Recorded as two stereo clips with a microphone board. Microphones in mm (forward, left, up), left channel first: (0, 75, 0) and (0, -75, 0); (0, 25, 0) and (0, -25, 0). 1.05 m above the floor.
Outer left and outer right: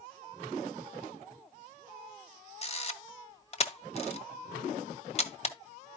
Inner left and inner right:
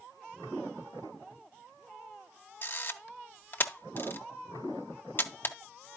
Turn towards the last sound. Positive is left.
turn(degrees=45)  # may be behind; listen again after turning